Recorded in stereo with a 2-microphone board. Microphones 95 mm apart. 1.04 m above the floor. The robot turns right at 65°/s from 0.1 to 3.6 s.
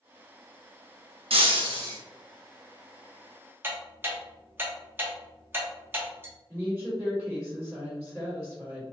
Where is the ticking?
25° right (ahead or behind), 0.8 m.